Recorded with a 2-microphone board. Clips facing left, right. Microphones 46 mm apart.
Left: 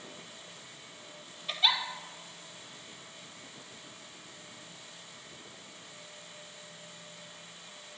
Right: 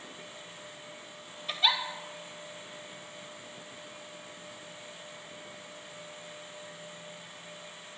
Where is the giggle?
Centre (ahead or behind), 0.7 m.